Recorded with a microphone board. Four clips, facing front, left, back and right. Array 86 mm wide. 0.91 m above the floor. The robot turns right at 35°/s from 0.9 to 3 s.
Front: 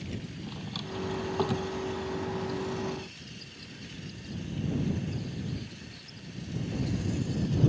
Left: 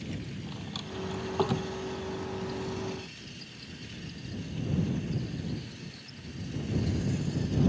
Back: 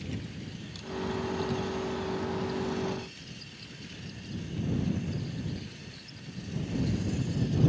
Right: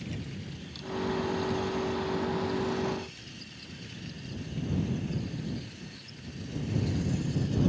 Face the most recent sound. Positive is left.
turn(degrees=115)